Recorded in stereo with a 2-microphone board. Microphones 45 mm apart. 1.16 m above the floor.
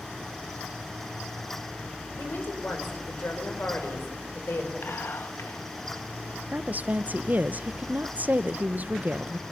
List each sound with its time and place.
2.2 s a woman speaking: 55° left (ahead or behind), 5 m
4.8 s whispering: 60° left (ahead or behind), 1.8 m
6.5 s a woman speaking: 40° right (ahead or behind), 0.7 m